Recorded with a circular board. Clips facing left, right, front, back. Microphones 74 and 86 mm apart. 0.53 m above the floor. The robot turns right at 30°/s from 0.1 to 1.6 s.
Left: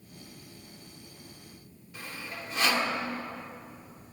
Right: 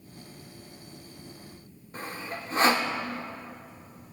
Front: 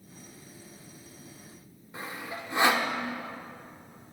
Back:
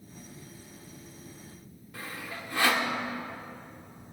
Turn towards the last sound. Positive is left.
turn(degrees=-60)